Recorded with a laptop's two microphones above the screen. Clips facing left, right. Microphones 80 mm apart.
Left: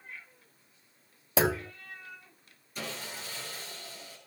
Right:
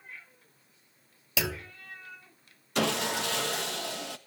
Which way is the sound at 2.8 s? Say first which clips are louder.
Right 12 dB; 70° right (ahead or behind).